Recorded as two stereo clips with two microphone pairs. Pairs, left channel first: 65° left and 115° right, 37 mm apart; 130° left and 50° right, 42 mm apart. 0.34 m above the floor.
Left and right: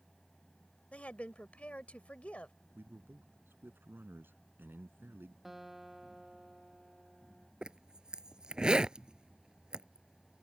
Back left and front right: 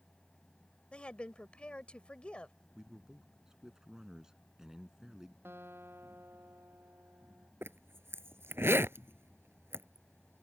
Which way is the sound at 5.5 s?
30° right.